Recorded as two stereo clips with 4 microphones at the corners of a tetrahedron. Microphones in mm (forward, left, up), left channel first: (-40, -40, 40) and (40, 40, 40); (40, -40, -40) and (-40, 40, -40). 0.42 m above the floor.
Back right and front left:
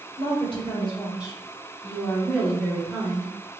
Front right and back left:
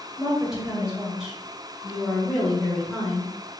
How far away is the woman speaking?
About 2 m.